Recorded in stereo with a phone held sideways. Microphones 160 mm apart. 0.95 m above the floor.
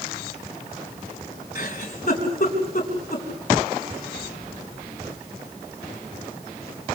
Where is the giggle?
55° left (ahead or behind), 4 m.